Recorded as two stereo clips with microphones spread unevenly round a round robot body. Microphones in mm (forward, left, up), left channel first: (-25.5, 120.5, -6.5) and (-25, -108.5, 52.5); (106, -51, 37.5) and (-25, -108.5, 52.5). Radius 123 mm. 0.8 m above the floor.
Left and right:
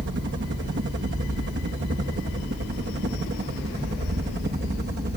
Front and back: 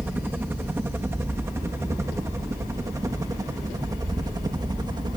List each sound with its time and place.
0.0 s a helicopter: 80° right; by 5.2 s 115° right